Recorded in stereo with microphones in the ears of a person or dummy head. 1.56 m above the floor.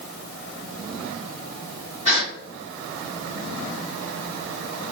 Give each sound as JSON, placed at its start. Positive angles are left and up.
{"t": 2.0, "sound": "a gasp", "side_deg": -25, "distance_m": 1.7}